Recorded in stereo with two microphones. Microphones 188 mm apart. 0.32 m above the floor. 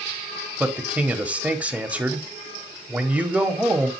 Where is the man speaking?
5° right (ahead or behind), 1.2 m.